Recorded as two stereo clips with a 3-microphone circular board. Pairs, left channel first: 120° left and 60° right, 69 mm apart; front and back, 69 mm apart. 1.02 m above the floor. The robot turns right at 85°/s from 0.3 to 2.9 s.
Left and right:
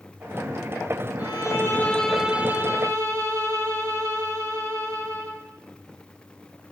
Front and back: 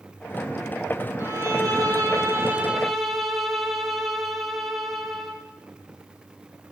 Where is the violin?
125° left, 2 m; by 5.4 s 90° right, 2 m.